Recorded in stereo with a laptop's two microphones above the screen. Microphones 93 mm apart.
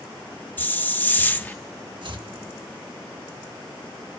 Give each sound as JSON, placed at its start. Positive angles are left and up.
{"t": 0.6, "sound": "a hiss", "side_deg": 20, "distance_m": 0.6}
{"t": 2.0, "sound": "chopping", "side_deg": -55, "distance_m": 1.5}